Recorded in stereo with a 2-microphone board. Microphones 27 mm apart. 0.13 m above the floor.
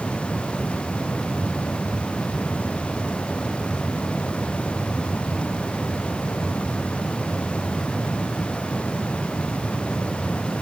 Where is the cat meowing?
No cat meowing in this recording.